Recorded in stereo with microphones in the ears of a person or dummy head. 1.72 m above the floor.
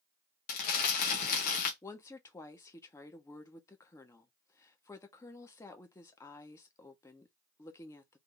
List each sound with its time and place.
0.5 s crumpling: 50° left (ahead or behind), 1.6 m
1.8 s a woman speaking: 20° left (ahead or behind), 1.1 m